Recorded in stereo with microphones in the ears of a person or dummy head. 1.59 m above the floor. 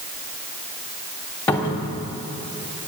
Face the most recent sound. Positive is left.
turn(degrees=15)  # may be behind; listen again after turning